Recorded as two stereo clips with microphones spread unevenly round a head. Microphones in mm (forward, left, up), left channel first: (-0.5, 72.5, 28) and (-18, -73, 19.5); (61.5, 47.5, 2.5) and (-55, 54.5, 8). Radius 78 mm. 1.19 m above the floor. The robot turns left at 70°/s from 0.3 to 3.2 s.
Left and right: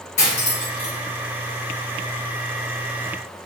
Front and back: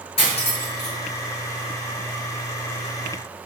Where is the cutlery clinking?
35° left, 1.0 m; by 0.9 s 10° right, 1.0 m.